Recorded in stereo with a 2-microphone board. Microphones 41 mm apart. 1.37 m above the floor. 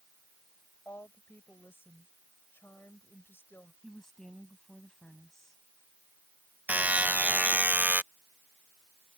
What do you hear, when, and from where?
0.8 s a woman speaking: 70° left (ahead or behind)
3.8 s a woman speaking: 10° left (ahead or behind)
6.7 s a buzzer: 40° right (ahead or behind)